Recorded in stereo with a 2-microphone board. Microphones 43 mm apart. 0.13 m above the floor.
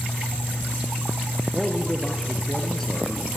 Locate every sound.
1.5 s a man speaking: 10° left (ahead or behind), 2.5 m